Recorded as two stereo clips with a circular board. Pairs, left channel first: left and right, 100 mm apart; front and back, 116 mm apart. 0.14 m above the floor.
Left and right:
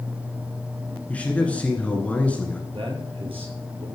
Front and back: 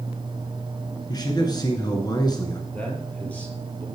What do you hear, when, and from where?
1.1 s a man speaking: 20° left, 1.8 m
2.7 s a man speaking: 75° right, 3.5 m